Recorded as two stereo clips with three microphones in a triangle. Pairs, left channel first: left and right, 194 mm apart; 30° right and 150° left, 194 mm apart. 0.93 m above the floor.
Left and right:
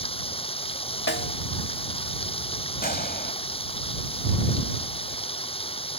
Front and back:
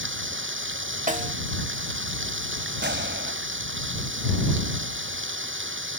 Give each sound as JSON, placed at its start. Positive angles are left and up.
{"t": 0.0, "sound": "running water", "azimuth_deg": 150}
{"t": 1.1, "sound": "a snare drum", "azimuth_deg": 105}
{"t": 2.8, "sound": "a gunshot", "azimuth_deg": 130}